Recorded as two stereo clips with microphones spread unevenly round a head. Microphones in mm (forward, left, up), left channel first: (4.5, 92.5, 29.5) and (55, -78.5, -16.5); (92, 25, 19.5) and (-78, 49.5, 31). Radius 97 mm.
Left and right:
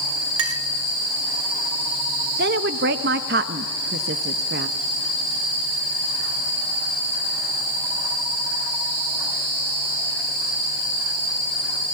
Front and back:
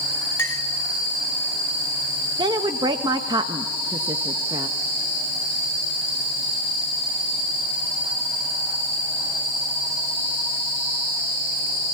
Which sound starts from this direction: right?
A clink, at 0.4 s.